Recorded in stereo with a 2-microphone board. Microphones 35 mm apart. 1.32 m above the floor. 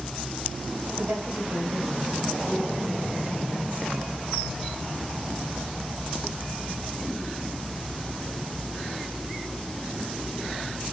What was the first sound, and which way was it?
A woman speaking, 85° right.